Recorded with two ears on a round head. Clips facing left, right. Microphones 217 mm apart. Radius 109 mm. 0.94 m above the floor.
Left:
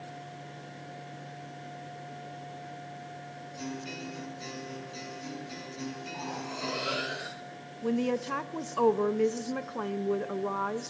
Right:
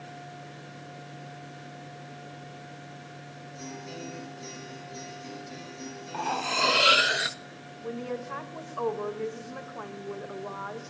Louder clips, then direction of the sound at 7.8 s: Left 6 dB; 50° left (ahead or behind).